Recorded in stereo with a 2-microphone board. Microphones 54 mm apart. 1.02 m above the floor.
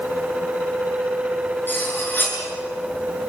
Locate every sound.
1.7 s cutlery clinking: 40° left (ahead or behind), 7 m